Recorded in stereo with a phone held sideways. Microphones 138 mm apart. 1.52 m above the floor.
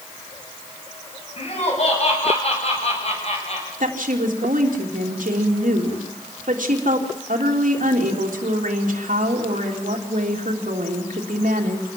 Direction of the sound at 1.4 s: 50° left (ahead or behind).